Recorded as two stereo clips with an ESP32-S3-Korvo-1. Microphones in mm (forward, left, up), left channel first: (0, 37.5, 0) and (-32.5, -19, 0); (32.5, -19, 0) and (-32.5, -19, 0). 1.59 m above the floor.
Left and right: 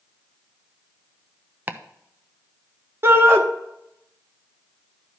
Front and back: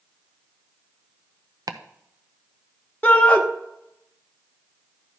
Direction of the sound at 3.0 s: 70° right.